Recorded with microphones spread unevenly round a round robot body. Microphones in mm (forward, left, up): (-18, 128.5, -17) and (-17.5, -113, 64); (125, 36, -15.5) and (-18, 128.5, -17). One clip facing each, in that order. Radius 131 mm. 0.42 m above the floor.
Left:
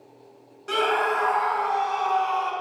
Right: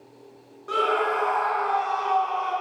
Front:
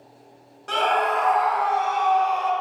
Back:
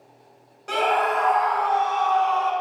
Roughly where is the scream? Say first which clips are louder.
Even, even; left.